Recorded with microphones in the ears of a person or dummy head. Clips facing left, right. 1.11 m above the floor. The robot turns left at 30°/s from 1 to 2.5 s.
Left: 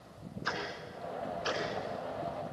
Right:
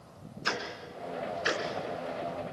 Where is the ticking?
45° right (ahead or behind), 3 m; by 1.6 s 25° right (ahead or behind), 3 m.